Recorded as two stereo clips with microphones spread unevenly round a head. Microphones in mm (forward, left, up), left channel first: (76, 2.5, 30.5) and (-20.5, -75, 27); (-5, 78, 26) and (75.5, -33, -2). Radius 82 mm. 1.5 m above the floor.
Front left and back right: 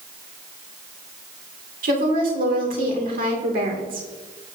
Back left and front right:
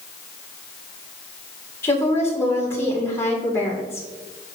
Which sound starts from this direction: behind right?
A woman speaking, at 1.8 s.